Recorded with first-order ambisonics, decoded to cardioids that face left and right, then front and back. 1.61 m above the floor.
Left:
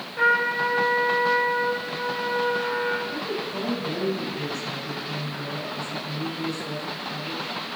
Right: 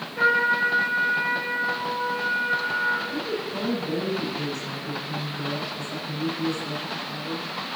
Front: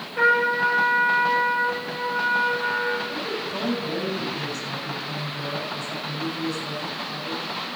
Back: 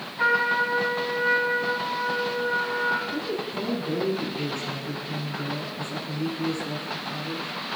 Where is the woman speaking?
Straight ahead, 8.5 m.